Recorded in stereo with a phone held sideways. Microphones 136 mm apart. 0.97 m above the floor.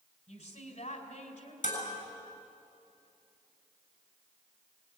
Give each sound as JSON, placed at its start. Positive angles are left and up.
{"t": 0.3, "sound": "a woman speaking", "side_deg": 60, "distance_m": 4.0}
{"t": 1.6, "sound": "dishes clattering", "side_deg": 75, "distance_m": 7.0}